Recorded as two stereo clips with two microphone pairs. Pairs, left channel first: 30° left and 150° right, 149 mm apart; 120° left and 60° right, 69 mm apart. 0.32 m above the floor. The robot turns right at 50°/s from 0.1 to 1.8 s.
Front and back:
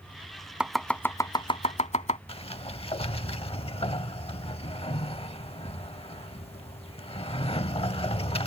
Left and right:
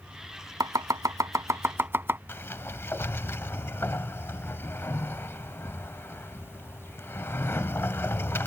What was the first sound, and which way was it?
Chopping, 65° right.